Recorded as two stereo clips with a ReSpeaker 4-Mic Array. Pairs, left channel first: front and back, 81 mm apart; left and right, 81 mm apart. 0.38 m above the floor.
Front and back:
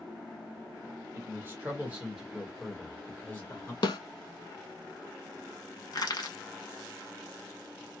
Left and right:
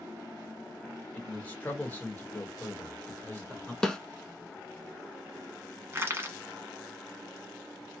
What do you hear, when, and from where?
1.1 s a man speaking: 150° left, 1.3 m; by 3.7 s 35° left, 1.3 m
3.8 s a snare drum: 10° left, 0.6 m
5.9 s crushing: 30° right, 1.0 m